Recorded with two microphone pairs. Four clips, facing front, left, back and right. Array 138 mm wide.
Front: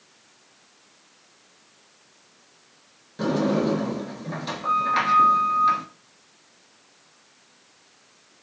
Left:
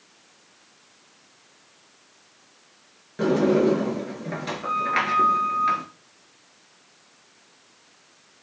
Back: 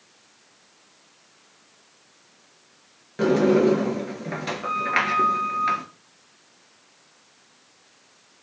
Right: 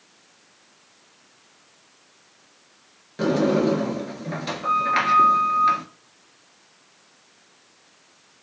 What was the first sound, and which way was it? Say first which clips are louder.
A sliding door: left 1 dB, back 5 dB; 165° right.